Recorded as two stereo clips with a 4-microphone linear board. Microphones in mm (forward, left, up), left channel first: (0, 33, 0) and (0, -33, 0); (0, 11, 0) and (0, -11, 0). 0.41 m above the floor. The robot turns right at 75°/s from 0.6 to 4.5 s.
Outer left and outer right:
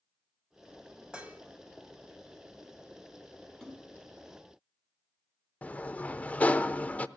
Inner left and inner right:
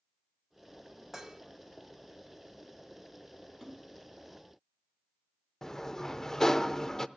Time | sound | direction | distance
1.1 | dishes clattering | 15° right (ahead or behind) | 1.4 m
3.6 | a splash | 5° left (ahead or behind) | 3 m
5.6 | a sliding door | 20° left (ahead or behind) | 0.5 m